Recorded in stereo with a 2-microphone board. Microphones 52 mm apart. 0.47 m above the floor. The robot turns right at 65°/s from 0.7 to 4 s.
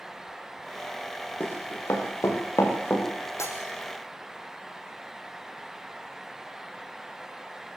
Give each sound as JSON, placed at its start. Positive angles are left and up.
{"t": 1.4, "sound": "running footsteps", "side_deg": 40, "distance_m": 7.5}
{"t": 3.4, "sound": "breaking glass", "side_deg": 65, "distance_m": 5.5}